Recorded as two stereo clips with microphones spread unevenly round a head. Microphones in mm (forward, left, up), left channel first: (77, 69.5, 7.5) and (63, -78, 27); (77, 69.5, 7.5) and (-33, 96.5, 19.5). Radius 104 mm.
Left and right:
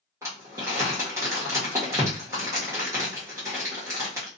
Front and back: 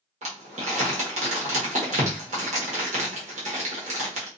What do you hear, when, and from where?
0.2 s crumpling: 170° right, 0.9 m